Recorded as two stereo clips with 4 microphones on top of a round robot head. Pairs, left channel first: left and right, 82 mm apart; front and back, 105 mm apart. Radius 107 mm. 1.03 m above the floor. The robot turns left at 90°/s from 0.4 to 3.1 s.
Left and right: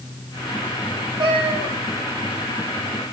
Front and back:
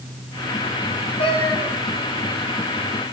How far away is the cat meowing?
About 3 m.